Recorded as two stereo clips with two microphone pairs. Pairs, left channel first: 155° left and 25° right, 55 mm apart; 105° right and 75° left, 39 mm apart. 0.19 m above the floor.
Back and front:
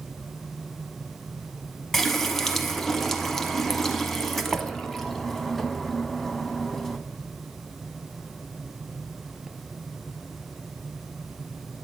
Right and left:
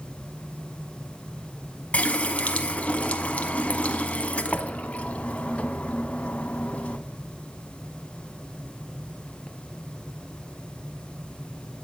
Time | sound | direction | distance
1.9 | a running tap | 115° right | 0.8 m